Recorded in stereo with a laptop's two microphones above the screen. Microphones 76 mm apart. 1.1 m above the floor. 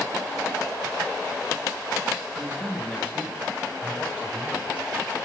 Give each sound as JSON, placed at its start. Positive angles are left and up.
{"t": 2.4, "sound": "a man speaking", "side_deg": 15, "distance_m": 7.5}